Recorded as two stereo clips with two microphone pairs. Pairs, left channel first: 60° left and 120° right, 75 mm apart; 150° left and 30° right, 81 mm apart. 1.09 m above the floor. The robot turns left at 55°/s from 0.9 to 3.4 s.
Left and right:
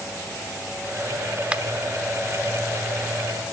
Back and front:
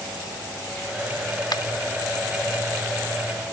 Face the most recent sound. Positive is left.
turn(degrees=65)